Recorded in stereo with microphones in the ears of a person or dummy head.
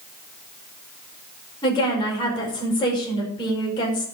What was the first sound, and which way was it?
A woman speaking, 25° left (ahead or behind).